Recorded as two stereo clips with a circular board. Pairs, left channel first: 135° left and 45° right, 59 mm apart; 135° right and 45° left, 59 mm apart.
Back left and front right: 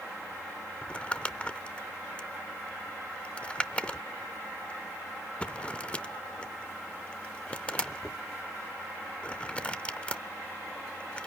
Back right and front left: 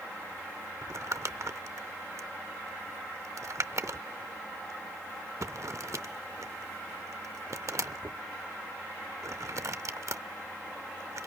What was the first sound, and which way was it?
Crumpling, 65° left.